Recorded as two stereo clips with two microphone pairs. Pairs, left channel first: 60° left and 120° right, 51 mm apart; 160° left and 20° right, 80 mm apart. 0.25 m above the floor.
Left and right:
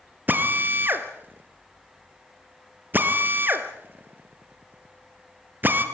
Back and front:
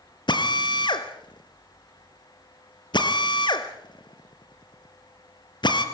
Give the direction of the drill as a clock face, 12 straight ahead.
6 o'clock.